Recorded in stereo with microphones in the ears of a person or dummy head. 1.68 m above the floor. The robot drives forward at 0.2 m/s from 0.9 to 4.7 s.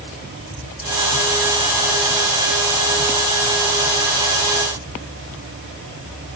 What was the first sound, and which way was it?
Only background noise.